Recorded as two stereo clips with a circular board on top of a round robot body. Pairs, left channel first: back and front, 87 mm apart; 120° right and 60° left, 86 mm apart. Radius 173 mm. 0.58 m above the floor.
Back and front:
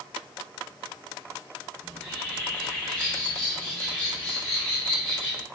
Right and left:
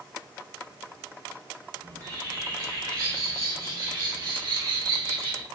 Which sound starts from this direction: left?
A bird, at 1.8 s.